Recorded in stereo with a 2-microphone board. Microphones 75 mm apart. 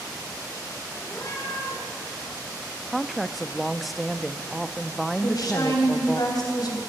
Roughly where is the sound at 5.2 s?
Left.